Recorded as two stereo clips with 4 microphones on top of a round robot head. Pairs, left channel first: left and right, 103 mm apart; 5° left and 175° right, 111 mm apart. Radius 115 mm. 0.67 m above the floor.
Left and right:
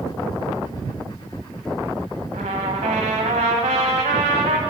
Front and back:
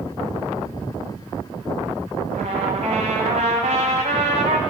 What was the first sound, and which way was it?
A trumpet, 125° right.